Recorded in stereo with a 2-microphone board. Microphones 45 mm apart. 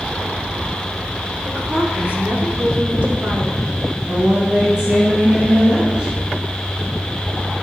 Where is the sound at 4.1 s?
20° right (ahead or behind), 1.8 m.